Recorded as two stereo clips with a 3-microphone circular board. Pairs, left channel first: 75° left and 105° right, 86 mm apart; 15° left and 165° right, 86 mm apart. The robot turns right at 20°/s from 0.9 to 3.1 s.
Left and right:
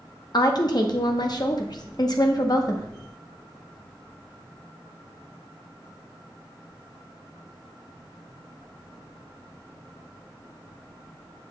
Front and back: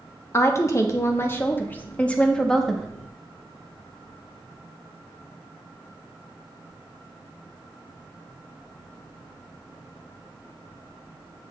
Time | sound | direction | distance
0.3 | a woman speaking | 65° left | 0.8 m